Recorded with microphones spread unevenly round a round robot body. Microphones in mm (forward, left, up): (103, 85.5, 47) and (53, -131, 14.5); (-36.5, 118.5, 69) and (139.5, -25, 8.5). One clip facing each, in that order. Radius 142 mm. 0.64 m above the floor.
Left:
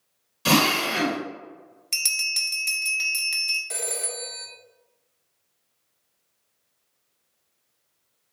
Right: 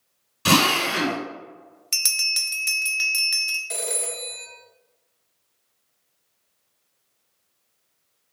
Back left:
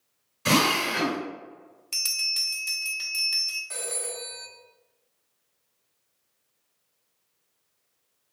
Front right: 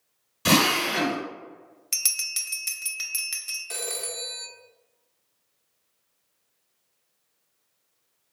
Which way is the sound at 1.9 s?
40° right.